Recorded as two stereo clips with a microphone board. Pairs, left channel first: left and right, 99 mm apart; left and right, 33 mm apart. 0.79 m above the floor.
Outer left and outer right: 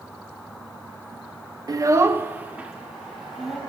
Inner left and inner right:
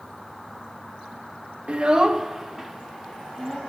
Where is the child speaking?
40° right (ahead or behind), 0.6 m; by 3.6 s 5° right (ahead or behind), 1.5 m.